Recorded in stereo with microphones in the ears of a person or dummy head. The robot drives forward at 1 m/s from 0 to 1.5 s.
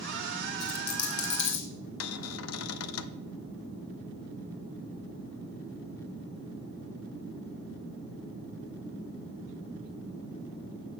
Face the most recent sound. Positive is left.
turn(degrees=80)